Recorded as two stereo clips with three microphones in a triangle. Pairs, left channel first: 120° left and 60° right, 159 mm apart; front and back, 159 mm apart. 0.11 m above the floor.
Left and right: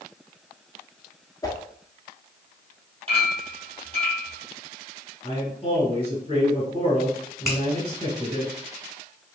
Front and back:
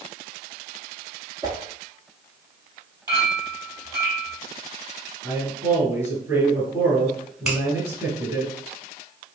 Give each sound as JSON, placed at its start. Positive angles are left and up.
{"t": 1.4, "sound": "a whoosh", "azimuth_deg": 155, "distance_m": 0.6}
{"t": 3.1, "sound": "a clink", "azimuth_deg": -110, "distance_m": 2.0}
{"t": 5.2, "sound": "a man speaking", "azimuth_deg": 120, "distance_m": 1.2}
{"t": 7.5, "sound": "a finger snap", "azimuth_deg": 95, "distance_m": 1.3}